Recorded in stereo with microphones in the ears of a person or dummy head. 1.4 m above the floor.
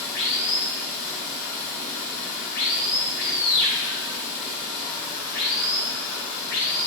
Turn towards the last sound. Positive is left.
turn(degrees=20)  # may be behind; listen again after turning